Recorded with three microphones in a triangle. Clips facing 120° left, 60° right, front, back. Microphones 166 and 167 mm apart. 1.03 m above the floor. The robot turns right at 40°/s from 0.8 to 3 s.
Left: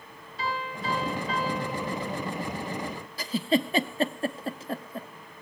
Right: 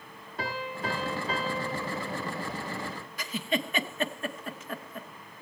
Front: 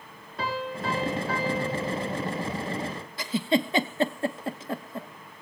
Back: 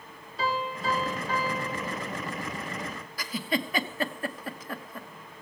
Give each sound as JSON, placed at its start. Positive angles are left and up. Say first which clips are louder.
{"t": 0.4, "sound": "a piano", "louder": "left 1 dB, even", "azimuth_deg": -30, "distance_m": 5.5}
{"t": 3.2, "sound": "a giggle", "louder": "left 6 dB, front 6 dB", "azimuth_deg": 65, "distance_m": 1.0}